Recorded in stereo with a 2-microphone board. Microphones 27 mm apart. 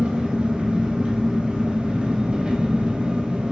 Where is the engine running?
50° right (ahead or behind), 1.2 m.